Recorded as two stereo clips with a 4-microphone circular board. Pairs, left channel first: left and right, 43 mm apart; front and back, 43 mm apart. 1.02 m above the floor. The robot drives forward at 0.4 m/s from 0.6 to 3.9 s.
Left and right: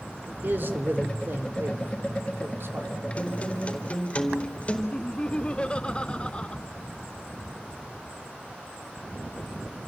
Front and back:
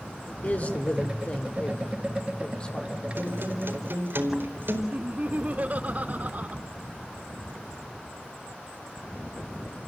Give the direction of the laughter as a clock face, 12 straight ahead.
7 o'clock.